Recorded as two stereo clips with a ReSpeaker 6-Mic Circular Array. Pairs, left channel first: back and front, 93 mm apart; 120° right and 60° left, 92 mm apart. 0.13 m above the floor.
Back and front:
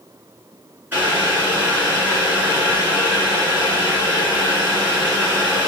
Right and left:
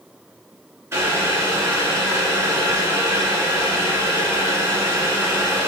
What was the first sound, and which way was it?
Boiling, 45° left.